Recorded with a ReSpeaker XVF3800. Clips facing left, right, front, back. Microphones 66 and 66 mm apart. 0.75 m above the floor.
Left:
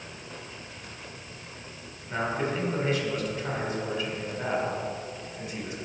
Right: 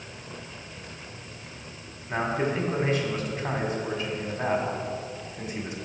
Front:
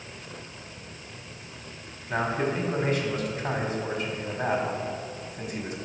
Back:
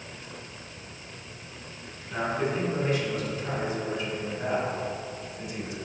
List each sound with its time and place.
2.1 s a man speaking: 45° right, 1.7 m